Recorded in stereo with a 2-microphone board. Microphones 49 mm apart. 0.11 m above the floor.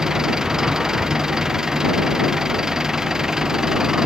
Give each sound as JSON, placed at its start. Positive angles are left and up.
{"t": 0.0, "sound": "an engine running", "side_deg": -10}